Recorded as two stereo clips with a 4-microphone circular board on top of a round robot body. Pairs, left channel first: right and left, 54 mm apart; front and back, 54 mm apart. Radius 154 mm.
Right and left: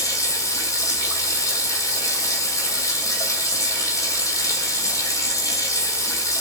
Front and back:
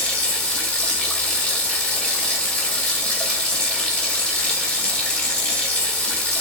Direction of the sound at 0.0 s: 70° right.